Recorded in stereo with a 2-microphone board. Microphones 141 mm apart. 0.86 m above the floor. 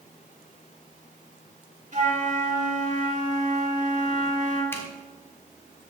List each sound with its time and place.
1.9 s a flute: 55° right (ahead or behind), 2.0 m
4.7 s a zipper: 15° left (ahead or behind), 1.2 m